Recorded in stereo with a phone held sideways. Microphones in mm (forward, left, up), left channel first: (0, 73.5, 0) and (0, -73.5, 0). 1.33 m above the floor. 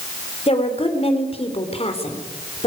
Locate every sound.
0.5 s a woman speaking: 45° left (ahead or behind), 4 m